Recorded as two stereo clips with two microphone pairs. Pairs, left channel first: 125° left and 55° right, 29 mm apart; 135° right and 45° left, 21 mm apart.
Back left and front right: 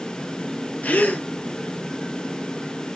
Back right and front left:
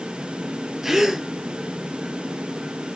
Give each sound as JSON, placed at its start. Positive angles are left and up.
{"t": 0.8, "sound": "a gasp", "azimuth_deg": 120, "distance_m": 0.9}